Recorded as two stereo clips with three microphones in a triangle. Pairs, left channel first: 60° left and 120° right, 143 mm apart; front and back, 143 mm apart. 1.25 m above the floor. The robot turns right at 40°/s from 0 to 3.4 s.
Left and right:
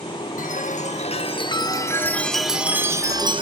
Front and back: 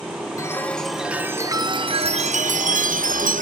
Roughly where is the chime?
Left.